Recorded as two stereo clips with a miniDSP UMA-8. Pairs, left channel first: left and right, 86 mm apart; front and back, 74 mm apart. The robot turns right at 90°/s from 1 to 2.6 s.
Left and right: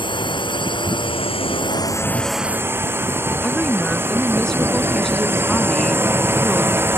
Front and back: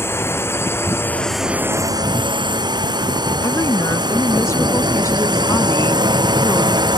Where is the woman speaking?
5° left.